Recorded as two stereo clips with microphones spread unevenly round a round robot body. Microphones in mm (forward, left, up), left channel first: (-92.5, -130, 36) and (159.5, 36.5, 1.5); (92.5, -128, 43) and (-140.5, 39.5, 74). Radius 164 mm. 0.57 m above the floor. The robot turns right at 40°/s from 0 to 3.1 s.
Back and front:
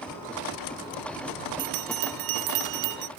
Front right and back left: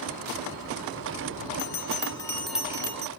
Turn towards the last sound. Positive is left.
turn(degrees=80)